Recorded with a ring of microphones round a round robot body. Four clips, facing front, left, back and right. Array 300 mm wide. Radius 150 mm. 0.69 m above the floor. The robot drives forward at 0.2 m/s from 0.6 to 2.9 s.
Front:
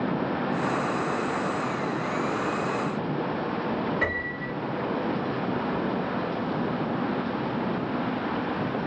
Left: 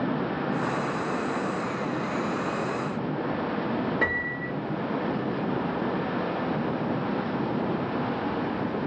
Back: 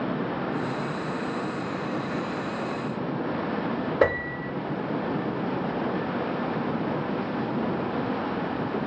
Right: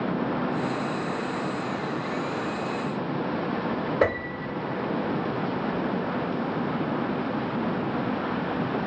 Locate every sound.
4.0 s a piano: 150° right, 1.6 m